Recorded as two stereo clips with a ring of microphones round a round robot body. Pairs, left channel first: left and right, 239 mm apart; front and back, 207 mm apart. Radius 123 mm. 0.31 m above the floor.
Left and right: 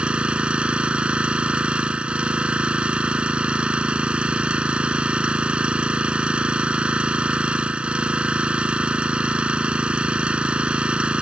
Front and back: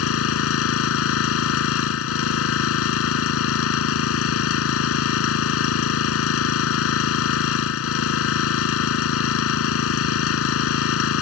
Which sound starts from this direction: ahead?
An engine running, at 0.0 s.